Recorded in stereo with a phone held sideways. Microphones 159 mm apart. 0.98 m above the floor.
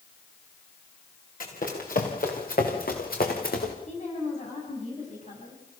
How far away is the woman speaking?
About 7.5 m.